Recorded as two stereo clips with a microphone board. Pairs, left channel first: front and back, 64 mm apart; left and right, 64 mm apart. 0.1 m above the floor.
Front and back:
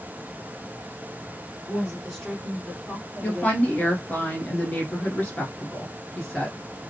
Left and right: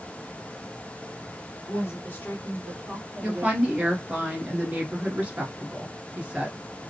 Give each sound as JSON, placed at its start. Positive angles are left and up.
{"t": 1.7, "sound": "a woman speaking", "azimuth_deg": 90, "distance_m": 1.7}
{"t": 3.2, "sound": "a woman speaking", "azimuth_deg": -40, "distance_m": 1.3}